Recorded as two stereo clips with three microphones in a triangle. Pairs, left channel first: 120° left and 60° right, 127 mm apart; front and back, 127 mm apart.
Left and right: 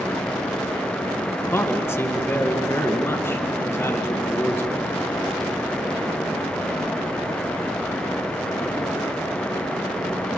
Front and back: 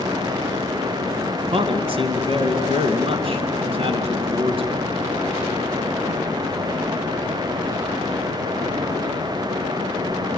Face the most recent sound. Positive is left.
turn(degrees=-175)